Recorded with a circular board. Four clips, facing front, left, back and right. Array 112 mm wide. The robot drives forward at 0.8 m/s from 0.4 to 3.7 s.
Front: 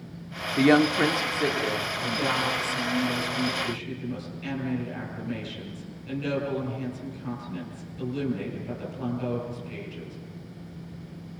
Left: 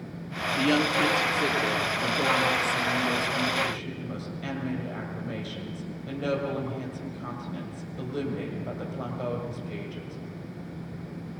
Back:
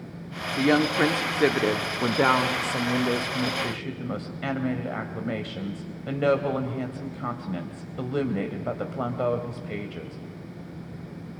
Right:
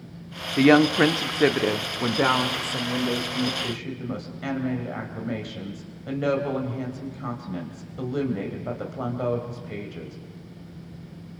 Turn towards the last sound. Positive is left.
turn(degrees=-160)